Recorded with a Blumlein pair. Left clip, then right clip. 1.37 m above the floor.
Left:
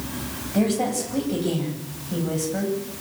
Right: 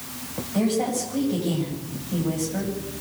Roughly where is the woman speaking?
Ahead.